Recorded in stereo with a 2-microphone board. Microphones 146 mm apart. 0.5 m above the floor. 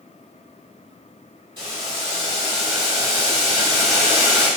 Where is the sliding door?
No sliding door in this recording.